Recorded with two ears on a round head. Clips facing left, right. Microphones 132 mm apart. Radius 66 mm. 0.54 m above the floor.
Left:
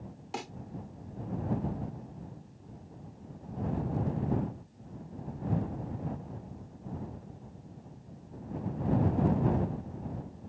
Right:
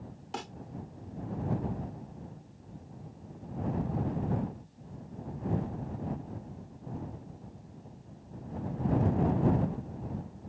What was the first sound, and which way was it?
A snare drum, 10° left (ahead or behind).